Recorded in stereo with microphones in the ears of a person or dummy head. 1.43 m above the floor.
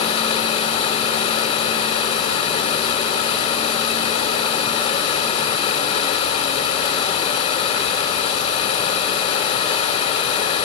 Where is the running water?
40° left (ahead or behind), 3.5 m.